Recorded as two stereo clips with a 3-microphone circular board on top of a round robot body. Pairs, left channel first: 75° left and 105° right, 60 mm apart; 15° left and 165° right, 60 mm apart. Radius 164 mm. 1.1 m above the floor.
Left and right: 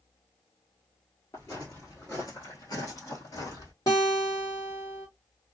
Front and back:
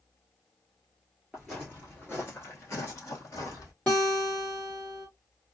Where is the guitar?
85° left, 0.8 m.